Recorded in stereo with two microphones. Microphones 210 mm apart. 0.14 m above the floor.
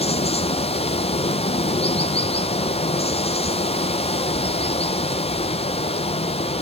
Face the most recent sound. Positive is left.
turn(degrees=30)  # may be behind; listen again after turning